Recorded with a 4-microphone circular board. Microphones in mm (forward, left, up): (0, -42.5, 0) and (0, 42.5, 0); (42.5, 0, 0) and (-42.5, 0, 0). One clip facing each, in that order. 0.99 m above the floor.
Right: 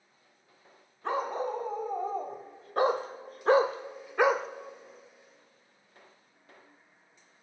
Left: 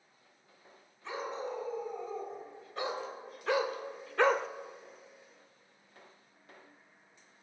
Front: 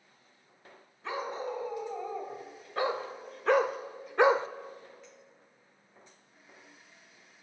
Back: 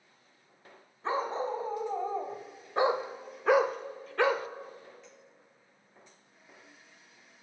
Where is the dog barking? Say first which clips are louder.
Right 7 dB, back 4 dB; 125° right, 2 m; by 4.5 s straight ahead, 0.7 m.